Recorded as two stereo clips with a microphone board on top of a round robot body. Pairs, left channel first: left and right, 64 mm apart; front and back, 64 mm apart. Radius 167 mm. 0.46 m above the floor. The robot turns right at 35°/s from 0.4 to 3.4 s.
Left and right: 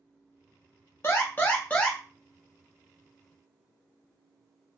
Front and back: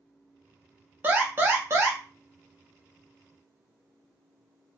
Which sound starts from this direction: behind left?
An alarm, at 1.0 s.